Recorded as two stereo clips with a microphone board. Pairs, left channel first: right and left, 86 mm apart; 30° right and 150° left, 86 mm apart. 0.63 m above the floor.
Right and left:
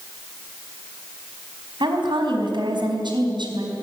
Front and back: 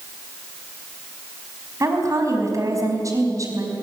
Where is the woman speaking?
105° left, 4.5 m.